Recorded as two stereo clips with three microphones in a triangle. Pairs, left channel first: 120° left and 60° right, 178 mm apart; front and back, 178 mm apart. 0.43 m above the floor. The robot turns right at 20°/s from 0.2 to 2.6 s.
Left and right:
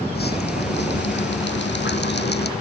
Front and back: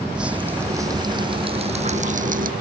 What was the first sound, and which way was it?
Dripping, 95° left.